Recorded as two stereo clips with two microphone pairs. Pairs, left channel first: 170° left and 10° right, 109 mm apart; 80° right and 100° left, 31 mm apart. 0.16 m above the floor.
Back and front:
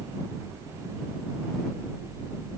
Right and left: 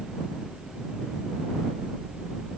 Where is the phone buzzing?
I don't hear a phone buzzing.